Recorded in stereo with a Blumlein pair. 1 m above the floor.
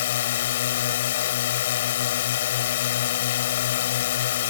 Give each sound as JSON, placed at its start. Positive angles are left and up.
{"t": 0.0, "sound": "a drone", "azimuth_deg": 55}